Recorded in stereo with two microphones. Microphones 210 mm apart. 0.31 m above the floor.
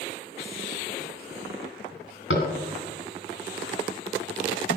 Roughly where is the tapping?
Left.